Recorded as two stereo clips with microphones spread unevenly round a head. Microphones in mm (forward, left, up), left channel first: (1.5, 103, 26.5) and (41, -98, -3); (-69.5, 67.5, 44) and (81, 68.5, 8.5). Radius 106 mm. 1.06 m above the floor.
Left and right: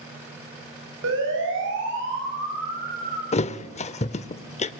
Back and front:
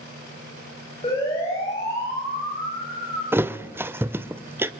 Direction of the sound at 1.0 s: 110° right.